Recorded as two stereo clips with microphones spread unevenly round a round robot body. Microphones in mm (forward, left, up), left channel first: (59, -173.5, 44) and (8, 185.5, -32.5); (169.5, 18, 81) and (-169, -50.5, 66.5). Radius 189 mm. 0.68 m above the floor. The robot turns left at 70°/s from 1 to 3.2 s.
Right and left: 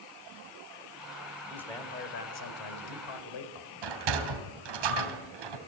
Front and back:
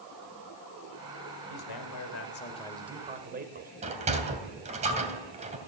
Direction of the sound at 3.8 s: 120° left.